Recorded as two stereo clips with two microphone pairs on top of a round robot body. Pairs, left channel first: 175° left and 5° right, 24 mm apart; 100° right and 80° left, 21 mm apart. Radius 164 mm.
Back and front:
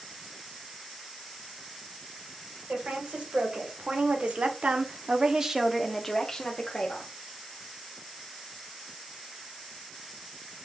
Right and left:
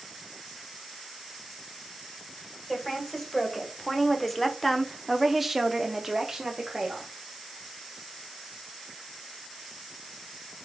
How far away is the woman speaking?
About 2 m.